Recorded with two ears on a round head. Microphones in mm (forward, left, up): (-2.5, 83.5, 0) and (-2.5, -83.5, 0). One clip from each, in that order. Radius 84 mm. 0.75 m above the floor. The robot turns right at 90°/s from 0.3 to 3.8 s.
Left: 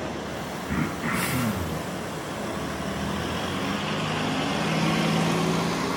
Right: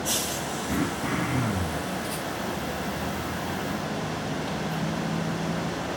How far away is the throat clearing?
About 4 m.